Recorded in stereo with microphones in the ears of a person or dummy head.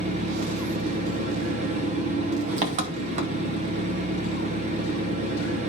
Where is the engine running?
35° right (ahead or behind), 0.7 m.